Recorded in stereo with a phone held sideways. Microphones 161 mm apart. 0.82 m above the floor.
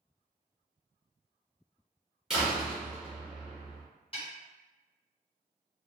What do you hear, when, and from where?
2.3 s a door slam: 5° right (ahead or behind), 1.2 m
4.1 s a snare drum: 35° left (ahead or behind), 1.4 m